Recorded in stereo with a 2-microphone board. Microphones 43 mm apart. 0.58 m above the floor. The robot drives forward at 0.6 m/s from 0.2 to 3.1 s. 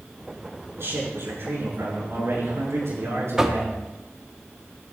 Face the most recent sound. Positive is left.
turn(degrees=-15)  # may be behind; listen again after turning